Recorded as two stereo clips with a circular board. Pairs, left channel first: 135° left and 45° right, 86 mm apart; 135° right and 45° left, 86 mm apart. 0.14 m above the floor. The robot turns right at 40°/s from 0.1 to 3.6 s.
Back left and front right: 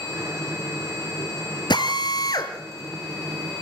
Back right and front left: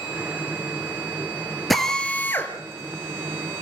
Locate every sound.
1.7 s a drill: 135° left, 2.5 m; by 3.6 s 150° right, 2.5 m